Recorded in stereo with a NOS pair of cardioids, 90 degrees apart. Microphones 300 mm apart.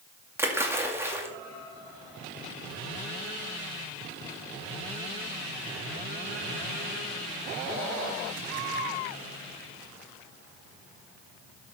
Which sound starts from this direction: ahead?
A splash, at 0.4 s.